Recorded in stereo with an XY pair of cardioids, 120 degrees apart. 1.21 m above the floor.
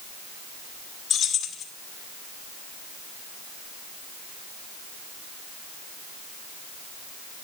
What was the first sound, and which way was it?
Keys jangling, 55° left.